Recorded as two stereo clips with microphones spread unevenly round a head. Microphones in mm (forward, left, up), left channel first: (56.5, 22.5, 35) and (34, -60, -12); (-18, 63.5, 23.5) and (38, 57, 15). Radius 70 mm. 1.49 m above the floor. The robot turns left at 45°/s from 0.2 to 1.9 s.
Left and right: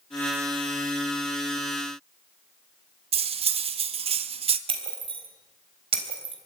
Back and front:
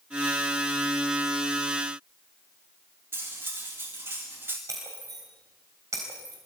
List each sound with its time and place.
3.1 s cutlery clinking: 85° right, 1.3 m
4.7 s breaking glass: 75° right, 3.5 m